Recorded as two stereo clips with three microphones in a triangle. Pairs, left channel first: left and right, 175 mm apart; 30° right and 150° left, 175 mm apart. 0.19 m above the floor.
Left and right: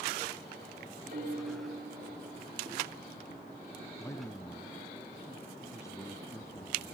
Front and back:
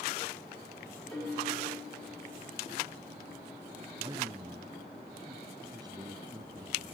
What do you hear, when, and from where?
1.1 s a piano: 105° right, 8.5 m
4.0 s a man speaking: 135° left, 1.0 m